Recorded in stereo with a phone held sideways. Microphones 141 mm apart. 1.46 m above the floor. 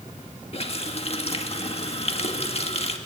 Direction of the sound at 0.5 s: 45° left (ahead or behind).